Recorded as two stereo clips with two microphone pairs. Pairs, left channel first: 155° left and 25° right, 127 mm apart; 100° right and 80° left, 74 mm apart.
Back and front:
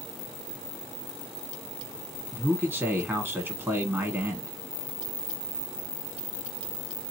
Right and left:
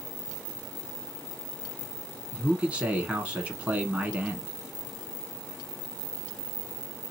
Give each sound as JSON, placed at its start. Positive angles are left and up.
{"t": 2.3, "sound": "a man speaking", "azimuth_deg": 25, "distance_m": 1.1}